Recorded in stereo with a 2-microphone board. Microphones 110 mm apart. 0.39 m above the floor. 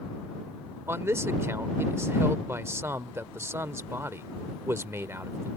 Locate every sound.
0.9 s a man speaking: 25° right (ahead or behind)